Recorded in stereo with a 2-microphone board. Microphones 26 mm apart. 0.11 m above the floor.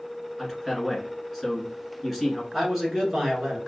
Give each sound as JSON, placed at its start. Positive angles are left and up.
{"t": 0.4, "sound": "a man speaking", "side_deg": 0, "distance_m": 1.4}
{"t": 2.5, "sound": "a man speaking", "side_deg": -20, "distance_m": 1.4}